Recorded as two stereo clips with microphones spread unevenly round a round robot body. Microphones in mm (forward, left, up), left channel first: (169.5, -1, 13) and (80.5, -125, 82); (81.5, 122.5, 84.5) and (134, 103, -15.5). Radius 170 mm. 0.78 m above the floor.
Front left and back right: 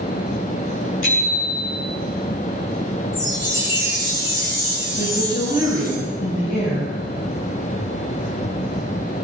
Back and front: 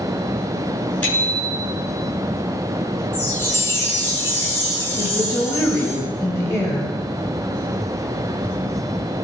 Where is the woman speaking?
105° left, 4.5 m.